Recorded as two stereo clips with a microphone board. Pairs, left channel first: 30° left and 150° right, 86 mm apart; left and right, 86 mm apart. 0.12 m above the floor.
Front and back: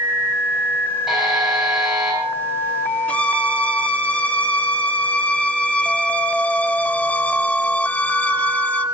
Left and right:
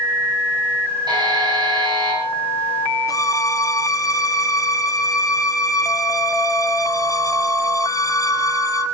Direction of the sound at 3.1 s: 95° left.